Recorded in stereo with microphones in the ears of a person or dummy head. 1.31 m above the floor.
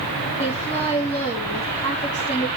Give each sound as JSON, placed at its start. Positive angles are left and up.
{"t": 0.4, "sound": "a woman speaking", "side_deg": 35, "distance_m": 2.5}